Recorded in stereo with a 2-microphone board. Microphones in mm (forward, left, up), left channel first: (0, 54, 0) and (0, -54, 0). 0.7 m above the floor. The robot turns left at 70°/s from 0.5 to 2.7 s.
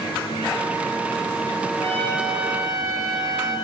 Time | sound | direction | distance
1.8 | a trumpet | 30° left | 8 m